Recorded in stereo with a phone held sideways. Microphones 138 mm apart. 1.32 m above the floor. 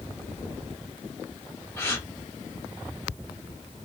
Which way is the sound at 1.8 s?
20° left (ahead or behind).